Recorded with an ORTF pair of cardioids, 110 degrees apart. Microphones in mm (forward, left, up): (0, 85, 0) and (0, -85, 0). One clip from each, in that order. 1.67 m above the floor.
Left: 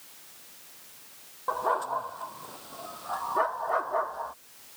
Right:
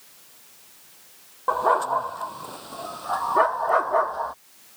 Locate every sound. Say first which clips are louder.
1.5 s a dog barking: right 7 dB; 45° right